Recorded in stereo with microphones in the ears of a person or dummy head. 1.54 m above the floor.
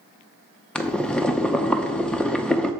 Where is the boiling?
5° left (ahead or behind), 0.6 m.